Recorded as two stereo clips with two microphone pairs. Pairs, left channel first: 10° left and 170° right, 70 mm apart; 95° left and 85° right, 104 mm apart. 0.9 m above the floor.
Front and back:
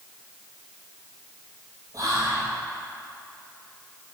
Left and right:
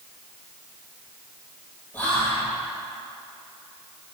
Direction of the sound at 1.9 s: 170° left.